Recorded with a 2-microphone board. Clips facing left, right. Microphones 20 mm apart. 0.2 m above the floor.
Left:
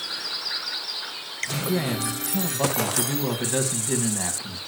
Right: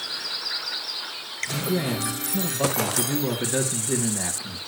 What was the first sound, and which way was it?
A man speaking, 25° left (ahead or behind).